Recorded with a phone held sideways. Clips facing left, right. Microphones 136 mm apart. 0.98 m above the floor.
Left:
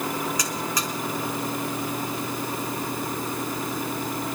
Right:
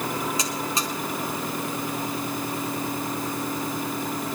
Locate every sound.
0.4 s a buzzer: 25° right (ahead or behind), 3 m